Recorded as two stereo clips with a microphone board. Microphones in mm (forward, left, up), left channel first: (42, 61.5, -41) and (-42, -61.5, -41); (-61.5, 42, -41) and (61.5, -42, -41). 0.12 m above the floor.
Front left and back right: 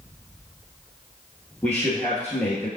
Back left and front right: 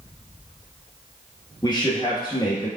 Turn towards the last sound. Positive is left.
turn(degrees=125)